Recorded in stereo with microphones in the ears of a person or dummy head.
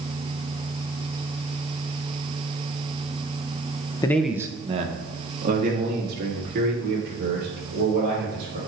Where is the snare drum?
No snare drum in this recording.